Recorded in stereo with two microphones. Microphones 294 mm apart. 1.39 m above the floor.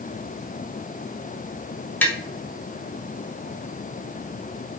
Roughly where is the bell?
No bell in this recording.